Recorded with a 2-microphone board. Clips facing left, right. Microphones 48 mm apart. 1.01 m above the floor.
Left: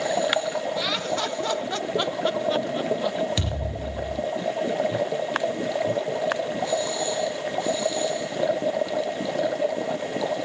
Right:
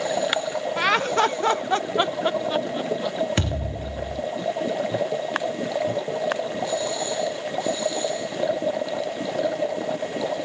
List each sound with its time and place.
0.8 s laughter: 50° right (ahead or behind), 1.2 m; by 3.2 s 10° left (ahead or behind), 0.9 m
3.4 s a thud: 45° right (ahead or behind), 3.5 m